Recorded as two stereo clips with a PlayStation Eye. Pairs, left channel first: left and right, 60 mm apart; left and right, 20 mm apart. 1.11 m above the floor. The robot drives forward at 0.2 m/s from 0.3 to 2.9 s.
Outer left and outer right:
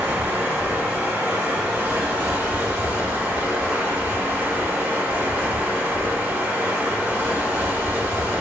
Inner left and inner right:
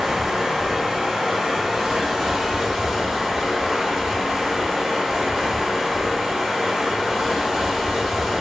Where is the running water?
30° right (ahead or behind), 0.8 m.